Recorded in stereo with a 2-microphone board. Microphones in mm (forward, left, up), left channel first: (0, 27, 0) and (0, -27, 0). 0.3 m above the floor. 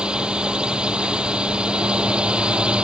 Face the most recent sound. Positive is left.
turn(degrees=-20)  # may be behind; listen again after turning